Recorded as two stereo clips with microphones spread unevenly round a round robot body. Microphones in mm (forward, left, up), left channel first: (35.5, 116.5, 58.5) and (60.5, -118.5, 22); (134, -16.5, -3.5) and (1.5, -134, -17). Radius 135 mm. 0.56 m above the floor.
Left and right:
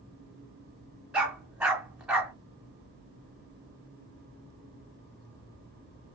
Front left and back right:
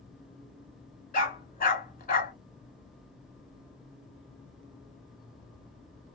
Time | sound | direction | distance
1.1 | a dog barking | 5° left | 1.4 m